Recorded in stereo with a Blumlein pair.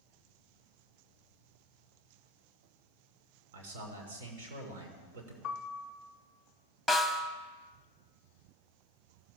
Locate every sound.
3.5 s a man speaking: 55° right, 2.5 m
5.4 s a piano: 15° left, 0.9 m
6.9 s a snare drum: straight ahead, 1.0 m